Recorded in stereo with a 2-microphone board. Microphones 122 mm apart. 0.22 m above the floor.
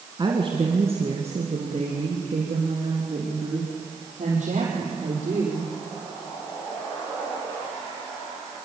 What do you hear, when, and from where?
0.2 s a woman speaking: 40° right (ahead or behind), 1.8 m; by 5.7 s 80° right, 6.5 m